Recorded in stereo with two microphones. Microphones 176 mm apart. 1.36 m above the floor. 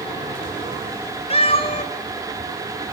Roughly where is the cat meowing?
Left.